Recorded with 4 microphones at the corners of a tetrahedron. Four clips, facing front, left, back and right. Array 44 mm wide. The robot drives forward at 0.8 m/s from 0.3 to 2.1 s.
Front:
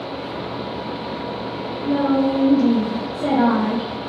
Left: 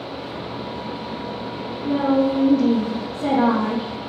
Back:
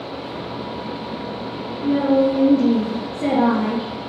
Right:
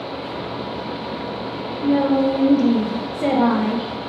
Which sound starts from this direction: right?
A woman speaking, at 1.8 s.